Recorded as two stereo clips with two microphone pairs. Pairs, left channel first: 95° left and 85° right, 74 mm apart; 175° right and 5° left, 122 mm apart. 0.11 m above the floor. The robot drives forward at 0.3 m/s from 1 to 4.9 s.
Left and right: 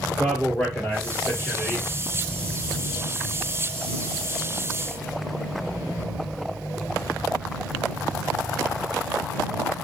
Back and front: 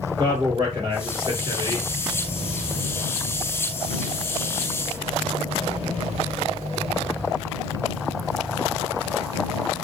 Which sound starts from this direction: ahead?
A man speaking, at 0.2 s.